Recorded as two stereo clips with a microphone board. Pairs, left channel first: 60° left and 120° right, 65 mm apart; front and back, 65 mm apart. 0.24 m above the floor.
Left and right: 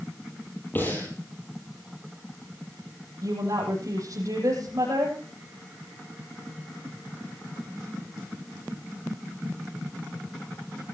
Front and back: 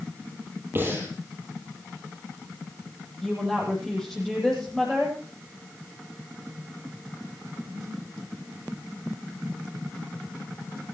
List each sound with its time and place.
0.8 s breathing: 120° left, 8.5 m
3.2 s a woman speaking: 85° right, 8.5 m